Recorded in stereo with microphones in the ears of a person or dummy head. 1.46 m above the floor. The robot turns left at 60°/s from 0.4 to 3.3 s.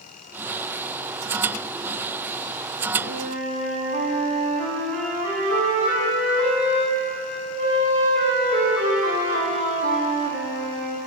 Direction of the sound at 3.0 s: 55° right (ahead or behind).